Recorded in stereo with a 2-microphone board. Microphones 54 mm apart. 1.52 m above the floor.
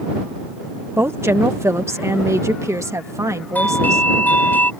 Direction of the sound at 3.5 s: 35° left (ahead or behind).